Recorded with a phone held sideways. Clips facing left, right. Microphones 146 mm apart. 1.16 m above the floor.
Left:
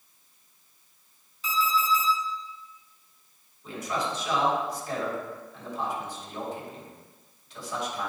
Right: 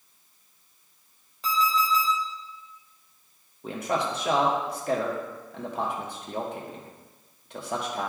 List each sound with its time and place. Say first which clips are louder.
1.4 s an alarm clock: right 1 dB; 65° right (ahead or behind), 2 m
3.6 s a man speaking: right 3 dB; 65° right (ahead or behind), 1.4 m